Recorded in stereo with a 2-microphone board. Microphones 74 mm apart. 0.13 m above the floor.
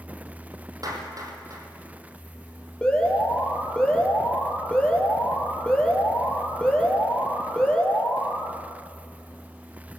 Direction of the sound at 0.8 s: 50° right (ahead or behind).